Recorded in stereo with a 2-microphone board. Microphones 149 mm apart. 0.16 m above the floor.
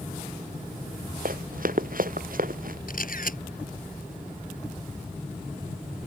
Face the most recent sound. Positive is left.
turn(degrees=65)  # may be behind; listen again after turning